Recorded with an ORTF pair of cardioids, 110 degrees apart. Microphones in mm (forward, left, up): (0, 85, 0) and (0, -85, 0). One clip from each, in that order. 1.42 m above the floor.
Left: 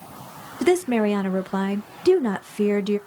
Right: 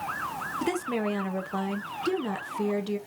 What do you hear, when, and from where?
0.6 s a woman speaking: 35° left, 0.7 m